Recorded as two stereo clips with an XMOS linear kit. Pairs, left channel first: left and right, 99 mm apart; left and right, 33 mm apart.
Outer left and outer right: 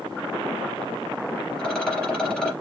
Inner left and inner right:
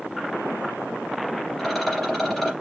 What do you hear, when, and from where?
1.6 s a rattle: 5° left (ahead or behind), 3 m